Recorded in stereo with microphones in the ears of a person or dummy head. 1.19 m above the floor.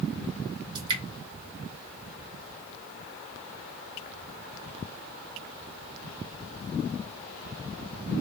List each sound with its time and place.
0.8 s dripping: 25° right (ahead or behind), 1.5 m